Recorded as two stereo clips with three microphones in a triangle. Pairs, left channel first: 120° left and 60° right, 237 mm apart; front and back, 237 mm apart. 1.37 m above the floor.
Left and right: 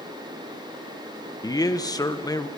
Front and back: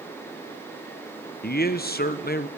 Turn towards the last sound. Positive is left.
turn(degrees=45)